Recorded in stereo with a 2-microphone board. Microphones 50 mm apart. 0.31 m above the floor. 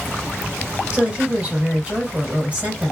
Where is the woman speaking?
25° right (ahead or behind), 1.6 m.